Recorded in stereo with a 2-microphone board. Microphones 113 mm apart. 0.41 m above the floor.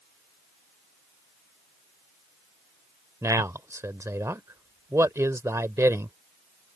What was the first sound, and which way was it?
A man speaking, 25° right (ahead or behind).